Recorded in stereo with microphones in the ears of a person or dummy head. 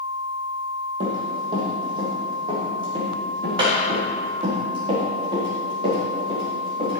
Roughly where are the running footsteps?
Right.